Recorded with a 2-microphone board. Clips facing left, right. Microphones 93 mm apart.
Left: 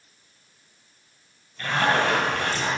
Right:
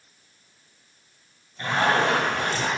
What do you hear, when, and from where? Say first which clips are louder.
1.6 s a zipper: even; 20° right (ahead or behind), 2.5 m